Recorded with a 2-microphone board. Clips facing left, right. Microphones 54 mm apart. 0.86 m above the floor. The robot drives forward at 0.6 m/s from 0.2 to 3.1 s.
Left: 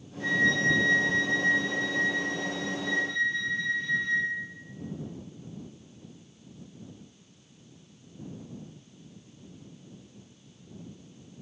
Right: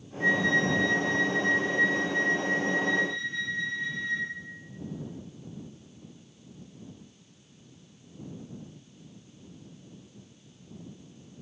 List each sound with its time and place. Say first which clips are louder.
0.2 s a flute: even; 15° right (ahead or behind), 4.5 m